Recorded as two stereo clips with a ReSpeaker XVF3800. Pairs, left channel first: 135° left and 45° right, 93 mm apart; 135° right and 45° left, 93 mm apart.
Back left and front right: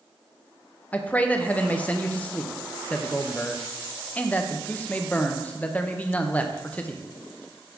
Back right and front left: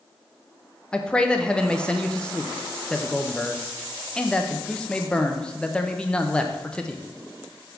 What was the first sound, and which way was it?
A man speaking, 170° left.